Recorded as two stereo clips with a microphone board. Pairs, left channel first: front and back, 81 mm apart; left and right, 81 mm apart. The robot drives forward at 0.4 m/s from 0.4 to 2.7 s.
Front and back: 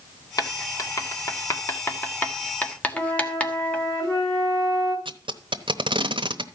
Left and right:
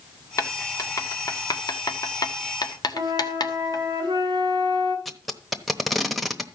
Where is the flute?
50° right, 4 m.